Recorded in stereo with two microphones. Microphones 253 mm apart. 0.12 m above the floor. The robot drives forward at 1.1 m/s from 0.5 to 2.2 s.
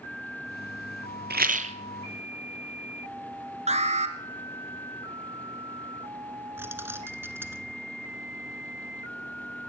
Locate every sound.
1.3 s a rattle: 40° right (ahead or behind), 0.8 m; by 1.8 s 25° right (ahead or behind), 1.2 m
3.7 s an alarm: 25° right (ahead or behind), 1.4 m
6.6 s keys jangling: 10° right (ahead or behind), 1.0 m